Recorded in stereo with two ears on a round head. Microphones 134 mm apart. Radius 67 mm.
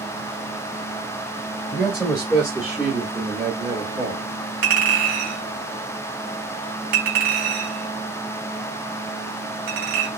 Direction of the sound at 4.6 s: 65° right (ahead or behind).